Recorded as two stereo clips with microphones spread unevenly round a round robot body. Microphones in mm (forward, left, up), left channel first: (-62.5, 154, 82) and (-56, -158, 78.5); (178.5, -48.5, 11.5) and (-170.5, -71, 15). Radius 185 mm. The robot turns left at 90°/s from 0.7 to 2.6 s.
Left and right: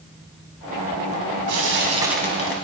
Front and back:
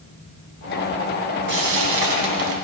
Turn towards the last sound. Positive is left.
turn(degrees=140)